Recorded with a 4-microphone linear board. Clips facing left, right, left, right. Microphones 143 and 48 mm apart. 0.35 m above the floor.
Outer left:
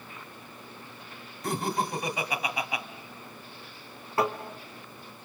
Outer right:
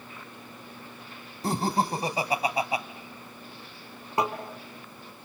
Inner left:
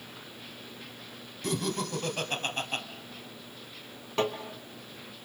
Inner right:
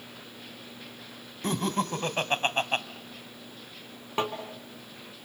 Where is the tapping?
20° right (ahead or behind), 3 m.